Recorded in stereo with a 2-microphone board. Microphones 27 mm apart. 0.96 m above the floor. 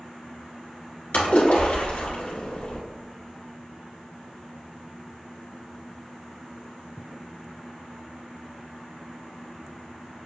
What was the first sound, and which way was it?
A splash, 70° left (ahead or behind).